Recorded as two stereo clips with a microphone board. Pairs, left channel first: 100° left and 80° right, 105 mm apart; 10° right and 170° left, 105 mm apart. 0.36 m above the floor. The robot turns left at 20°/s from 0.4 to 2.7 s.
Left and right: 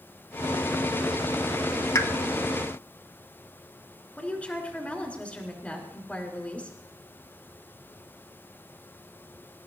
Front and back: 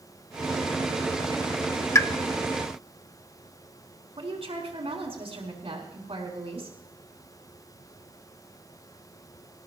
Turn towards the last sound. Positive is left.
turn(degrees=175)